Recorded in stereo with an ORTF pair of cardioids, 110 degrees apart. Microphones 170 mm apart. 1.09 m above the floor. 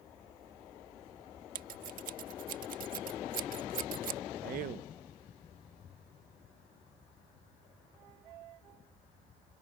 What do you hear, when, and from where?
1.6 s scissors: 55° right
4.4 s a man speaking: 65° right